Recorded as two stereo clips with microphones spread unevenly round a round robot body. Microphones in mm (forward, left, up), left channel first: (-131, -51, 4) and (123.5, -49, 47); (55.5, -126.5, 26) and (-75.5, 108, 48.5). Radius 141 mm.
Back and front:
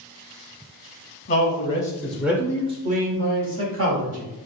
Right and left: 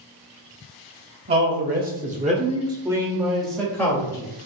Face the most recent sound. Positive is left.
turn(degrees=10)